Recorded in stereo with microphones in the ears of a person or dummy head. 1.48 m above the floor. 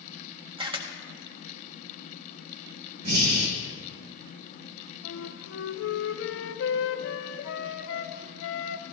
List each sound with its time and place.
0.6 s a camera shutter: 25° right (ahead or behind), 0.6 m
3.0 s breathing: 55° right (ahead or behind), 1.4 m
5.0 s a flute: 75° left (ahead or behind), 0.6 m